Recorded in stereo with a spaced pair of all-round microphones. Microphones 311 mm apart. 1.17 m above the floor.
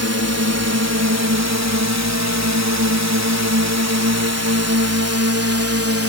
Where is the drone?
50° right (ahead or behind); by 6.1 s 45° right (ahead or behind).